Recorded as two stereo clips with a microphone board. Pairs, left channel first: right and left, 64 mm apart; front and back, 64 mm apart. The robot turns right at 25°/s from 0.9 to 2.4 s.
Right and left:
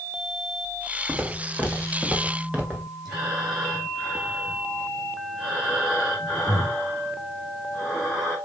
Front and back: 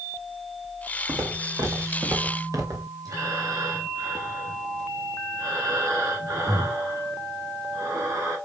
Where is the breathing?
170° left, 3.5 m.